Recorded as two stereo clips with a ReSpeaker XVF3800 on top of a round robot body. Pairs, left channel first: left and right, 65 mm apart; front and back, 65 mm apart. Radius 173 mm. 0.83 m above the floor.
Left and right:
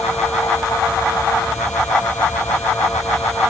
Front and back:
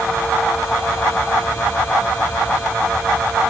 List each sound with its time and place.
Only background noise.